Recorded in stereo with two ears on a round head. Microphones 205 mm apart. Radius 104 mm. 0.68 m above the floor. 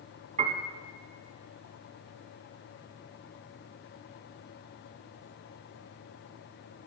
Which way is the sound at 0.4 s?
30° right (ahead or behind).